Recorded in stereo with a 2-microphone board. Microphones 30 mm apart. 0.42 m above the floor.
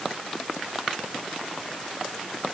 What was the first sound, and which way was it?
Only background noise.